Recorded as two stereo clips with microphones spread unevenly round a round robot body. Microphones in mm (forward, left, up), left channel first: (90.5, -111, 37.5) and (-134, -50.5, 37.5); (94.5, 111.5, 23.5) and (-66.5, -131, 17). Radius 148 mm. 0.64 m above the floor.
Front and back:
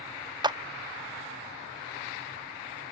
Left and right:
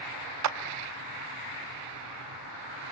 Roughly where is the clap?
Behind right.